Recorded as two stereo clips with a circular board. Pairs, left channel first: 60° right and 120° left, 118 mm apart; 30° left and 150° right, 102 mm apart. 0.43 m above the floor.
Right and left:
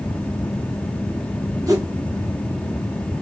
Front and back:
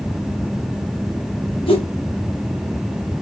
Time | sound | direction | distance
1.7 | a whoosh | 60° left | 2.0 m